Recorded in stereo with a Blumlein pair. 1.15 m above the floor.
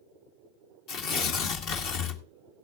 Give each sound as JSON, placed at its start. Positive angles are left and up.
{"t": 0.9, "sound": "tearing paper", "azimuth_deg": 40, "distance_m": 1.7}